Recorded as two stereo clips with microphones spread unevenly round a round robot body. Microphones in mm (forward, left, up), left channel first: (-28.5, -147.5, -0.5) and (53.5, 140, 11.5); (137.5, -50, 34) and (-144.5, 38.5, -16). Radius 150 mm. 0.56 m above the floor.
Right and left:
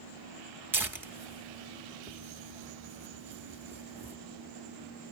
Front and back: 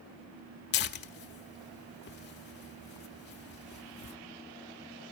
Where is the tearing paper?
5° right, 0.7 m.